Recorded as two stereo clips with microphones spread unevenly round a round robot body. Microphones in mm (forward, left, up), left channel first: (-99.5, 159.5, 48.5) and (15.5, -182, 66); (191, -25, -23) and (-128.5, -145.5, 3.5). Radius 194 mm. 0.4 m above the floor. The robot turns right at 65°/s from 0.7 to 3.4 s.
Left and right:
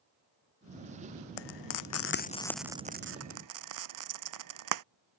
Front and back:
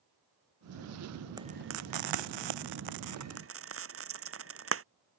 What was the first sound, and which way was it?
Frying, 120° left.